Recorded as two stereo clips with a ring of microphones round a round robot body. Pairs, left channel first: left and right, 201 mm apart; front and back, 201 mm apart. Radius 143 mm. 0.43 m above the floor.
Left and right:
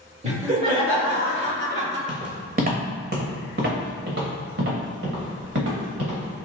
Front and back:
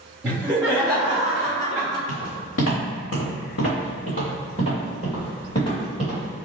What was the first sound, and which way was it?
Laughter, 105° right.